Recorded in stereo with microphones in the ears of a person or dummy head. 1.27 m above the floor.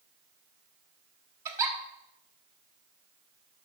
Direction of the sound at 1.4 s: 20° right (ahead or behind).